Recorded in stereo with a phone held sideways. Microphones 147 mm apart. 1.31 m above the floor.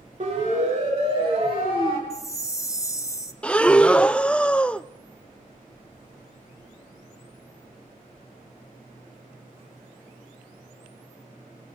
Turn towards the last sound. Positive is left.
turn(degrees=5)  # may be behind; listen again after turning